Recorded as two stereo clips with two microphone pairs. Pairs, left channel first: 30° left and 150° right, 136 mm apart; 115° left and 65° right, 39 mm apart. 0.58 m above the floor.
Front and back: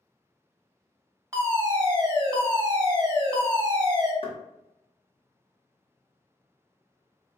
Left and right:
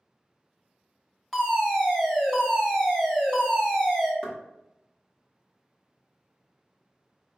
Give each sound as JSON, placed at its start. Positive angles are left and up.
{"t": 1.3, "sound": "a fire alarm", "azimuth_deg": -165, "distance_m": 1.5}
{"t": 4.2, "sound": "knocking", "azimuth_deg": 45, "distance_m": 1.3}